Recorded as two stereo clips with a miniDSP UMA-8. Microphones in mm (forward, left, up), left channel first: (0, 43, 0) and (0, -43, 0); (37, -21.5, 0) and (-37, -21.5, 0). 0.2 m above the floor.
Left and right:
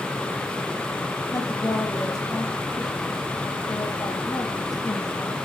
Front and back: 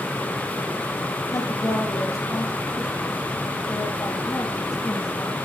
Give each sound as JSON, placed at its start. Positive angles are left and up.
{"t": 1.3, "sound": "a woman speaking", "azimuth_deg": 45, "distance_m": 5.5}